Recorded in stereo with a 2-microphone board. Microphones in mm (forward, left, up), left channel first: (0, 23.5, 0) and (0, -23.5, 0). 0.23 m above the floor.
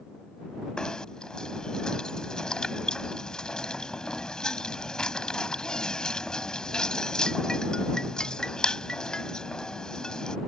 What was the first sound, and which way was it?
Knocking, 15° left (ahead or behind).